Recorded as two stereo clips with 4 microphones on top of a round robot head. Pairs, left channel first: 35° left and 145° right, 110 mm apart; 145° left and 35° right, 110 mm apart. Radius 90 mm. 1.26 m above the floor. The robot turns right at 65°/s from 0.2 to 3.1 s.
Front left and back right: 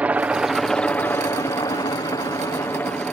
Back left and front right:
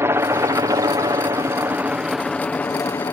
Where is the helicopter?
80° right; by 3.1 s 110° left.